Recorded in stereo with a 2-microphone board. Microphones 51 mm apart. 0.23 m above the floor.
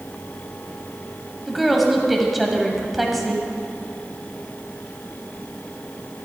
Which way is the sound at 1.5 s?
Centre (ahead or behind).